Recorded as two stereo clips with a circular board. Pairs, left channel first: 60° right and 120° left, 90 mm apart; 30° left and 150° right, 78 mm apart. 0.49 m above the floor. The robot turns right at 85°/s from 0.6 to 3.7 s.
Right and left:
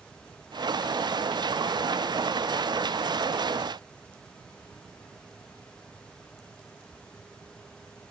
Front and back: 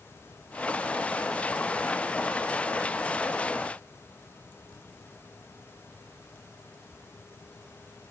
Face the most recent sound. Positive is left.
No sound to turn to.